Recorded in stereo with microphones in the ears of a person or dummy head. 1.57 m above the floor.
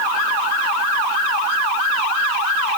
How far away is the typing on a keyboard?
I don't hear typing on a keyboard.